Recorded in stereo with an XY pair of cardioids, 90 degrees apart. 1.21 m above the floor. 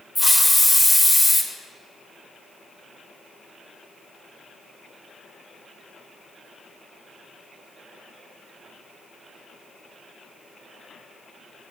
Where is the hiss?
10° left, 0.9 m.